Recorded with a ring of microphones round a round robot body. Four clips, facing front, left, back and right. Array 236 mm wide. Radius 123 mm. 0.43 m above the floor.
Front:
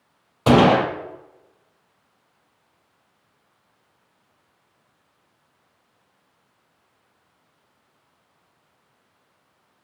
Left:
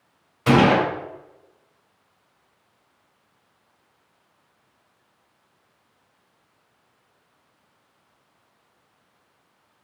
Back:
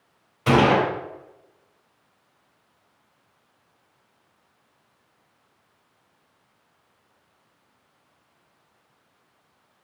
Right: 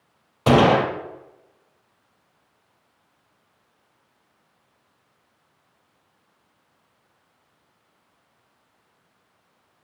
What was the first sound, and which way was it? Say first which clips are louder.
A gunshot: right 1 dB, front 3 dB; 45° right.